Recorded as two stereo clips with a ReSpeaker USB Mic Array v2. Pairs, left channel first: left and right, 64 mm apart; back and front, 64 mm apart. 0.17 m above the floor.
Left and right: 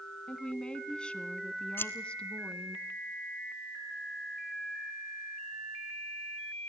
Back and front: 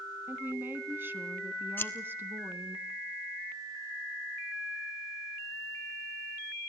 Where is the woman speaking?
25° left, 1.3 m.